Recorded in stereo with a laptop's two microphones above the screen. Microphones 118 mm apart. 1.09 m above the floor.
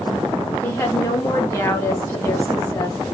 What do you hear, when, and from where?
0.6 s a woman speaking: 20° left (ahead or behind), 0.6 m